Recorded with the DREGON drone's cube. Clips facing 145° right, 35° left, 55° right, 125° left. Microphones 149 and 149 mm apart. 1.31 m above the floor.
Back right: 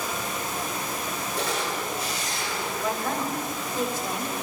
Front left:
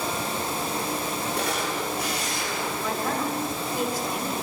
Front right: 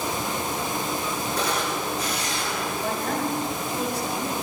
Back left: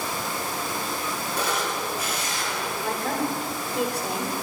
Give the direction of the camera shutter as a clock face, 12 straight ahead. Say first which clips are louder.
Back right 1 dB, even; 11 o'clock.